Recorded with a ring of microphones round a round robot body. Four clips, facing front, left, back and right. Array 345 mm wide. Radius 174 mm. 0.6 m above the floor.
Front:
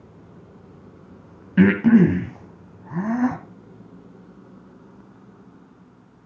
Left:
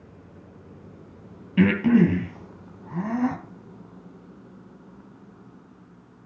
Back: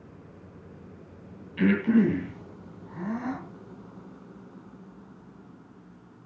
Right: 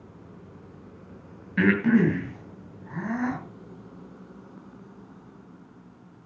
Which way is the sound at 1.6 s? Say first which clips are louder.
Left 2 dB, front 7 dB; 15° left.